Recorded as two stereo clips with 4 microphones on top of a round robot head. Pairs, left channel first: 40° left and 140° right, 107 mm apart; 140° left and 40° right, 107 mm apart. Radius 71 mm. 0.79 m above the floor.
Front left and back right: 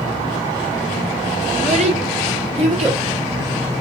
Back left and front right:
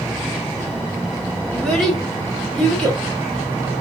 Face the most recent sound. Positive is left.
turn(degrees=-130)